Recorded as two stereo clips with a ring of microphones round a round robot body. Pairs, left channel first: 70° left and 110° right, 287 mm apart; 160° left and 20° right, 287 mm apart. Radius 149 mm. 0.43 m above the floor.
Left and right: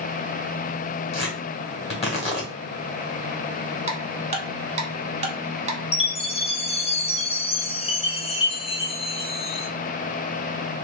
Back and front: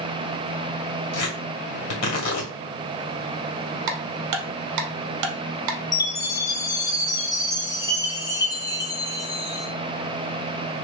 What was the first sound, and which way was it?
Tearing paper, 135° left.